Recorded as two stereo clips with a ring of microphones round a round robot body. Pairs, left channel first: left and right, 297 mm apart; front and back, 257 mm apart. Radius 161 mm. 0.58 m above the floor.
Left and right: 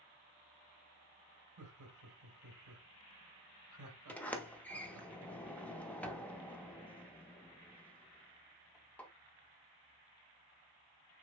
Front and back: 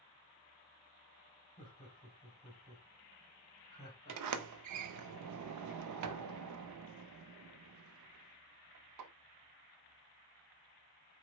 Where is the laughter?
75° right, 2.5 m.